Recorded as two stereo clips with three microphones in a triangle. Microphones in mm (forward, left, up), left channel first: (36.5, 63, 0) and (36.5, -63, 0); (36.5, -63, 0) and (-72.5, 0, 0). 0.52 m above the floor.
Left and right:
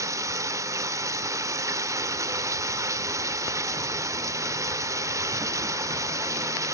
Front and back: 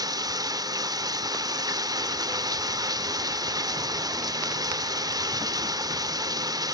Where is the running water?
150° right, 0.8 m.